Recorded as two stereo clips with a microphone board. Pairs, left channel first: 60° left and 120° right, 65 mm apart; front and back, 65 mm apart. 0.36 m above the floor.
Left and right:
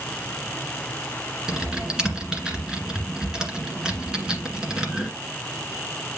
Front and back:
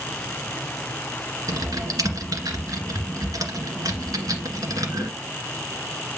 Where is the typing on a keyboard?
160° left, 1.7 m.